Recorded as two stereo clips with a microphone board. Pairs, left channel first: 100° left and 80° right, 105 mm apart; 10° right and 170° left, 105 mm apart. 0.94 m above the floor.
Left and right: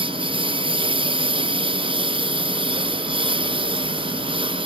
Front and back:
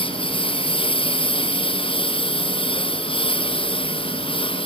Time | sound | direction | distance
0.0 | a lawn mower | 45° right | ?